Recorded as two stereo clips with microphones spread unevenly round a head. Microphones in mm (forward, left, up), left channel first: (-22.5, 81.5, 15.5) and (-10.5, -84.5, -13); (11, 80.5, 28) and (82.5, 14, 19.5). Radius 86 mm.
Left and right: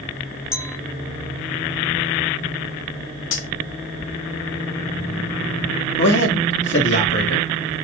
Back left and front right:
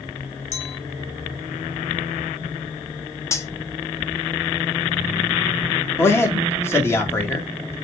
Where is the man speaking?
75° left, 1.6 m.